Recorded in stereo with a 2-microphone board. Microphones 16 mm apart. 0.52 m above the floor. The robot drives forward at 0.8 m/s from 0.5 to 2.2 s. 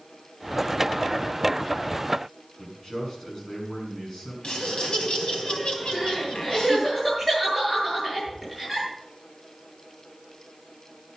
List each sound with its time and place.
2.6 s a man speaking: 35° left (ahead or behind), 6.5 m
4.4 s laughter: 75° left (ahead or behind), 3.5 m
5.9 s crying: 10° left (ahead or behind), 9 m